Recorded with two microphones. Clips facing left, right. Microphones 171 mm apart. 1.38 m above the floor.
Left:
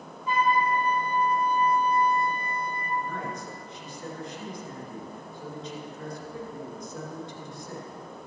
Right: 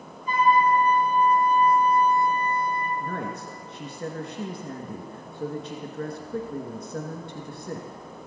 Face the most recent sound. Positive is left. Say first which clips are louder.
# right 2 dB
turn(degrees=-65)  # may be behind; listen again after turning